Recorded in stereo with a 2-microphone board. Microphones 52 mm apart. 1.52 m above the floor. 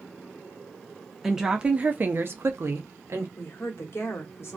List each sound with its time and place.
1.2 s a woman speaking: 5° right (ahead or behind), 0.7 m; by 3.3 s 55° right (ahead or behind), 0.9 m
3.4 s a woman speaking: 55° left (ahead or behind), 0.8 m